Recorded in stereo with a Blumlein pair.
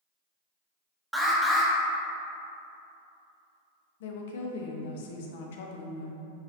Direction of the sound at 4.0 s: 55° left.